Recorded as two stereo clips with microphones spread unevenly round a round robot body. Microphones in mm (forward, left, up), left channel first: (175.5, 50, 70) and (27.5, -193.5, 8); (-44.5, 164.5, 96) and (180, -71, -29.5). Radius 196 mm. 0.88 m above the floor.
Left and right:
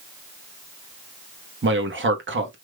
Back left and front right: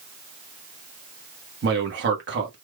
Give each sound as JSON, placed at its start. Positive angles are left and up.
{"t": 1.6, "sound": "a man speaking", "azimuth_deg": -85, "distance_m": 1.4}